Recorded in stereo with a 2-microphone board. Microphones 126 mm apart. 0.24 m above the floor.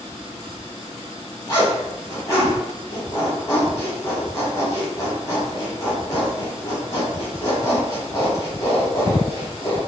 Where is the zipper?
30° left (ahead or behind), 1.5 m.